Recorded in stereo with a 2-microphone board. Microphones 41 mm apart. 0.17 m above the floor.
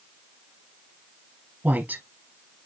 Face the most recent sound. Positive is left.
turn(degrees=-50)  # may be behind; listen again after turning